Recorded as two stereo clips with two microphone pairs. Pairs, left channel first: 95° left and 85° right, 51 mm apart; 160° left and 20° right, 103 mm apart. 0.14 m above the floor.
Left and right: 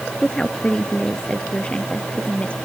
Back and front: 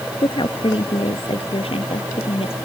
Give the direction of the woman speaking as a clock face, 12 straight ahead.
6 o'clock.